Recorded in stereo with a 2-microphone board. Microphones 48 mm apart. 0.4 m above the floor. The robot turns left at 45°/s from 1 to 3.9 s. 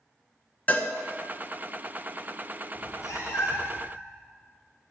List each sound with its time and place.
0.7 s a cowbell: 35° left (ahead or behind), 0.7 m
2.8 s a cat meowing: 100° left, 1.4 m; by 3.9 s 45° left, 1.4 m